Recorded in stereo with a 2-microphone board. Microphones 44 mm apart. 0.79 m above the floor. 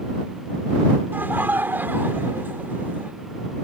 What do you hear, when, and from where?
1.1 s laughter: 50° right (ahead or behind)